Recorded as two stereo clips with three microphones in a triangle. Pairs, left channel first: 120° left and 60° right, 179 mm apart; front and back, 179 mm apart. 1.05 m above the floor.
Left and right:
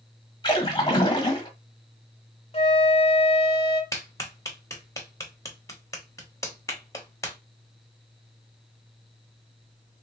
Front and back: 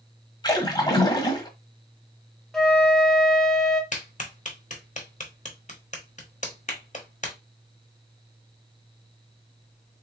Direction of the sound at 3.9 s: 50° left.